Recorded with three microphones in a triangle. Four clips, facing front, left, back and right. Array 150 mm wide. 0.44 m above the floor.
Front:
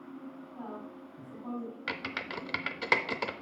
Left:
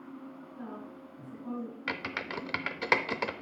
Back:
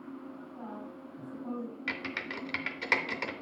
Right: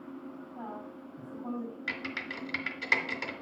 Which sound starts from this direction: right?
A woman speaking, at 0.6 s.